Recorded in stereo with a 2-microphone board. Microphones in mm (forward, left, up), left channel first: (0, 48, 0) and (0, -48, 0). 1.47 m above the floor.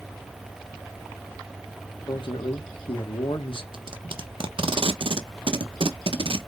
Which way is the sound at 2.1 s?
65° left (ahead or behind).